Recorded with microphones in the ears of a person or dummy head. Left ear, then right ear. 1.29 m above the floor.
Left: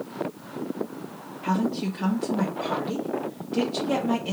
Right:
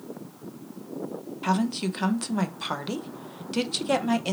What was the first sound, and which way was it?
A woman speaking, 40° right (ahead or behind).